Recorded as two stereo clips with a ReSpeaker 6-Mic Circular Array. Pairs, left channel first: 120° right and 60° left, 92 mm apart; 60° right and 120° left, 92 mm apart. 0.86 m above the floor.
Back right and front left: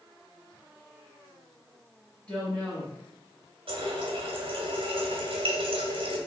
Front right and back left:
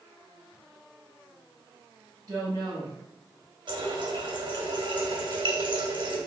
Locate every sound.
2.3 s a woman speaking: 160° left, 1.5 m
3.7 s a running tap: 85° left, 0.9 m